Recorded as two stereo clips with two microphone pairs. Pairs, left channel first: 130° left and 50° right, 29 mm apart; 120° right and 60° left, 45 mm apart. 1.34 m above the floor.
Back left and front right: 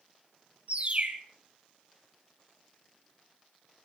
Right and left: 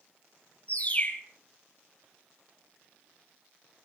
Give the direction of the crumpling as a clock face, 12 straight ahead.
I don't hear crumpling.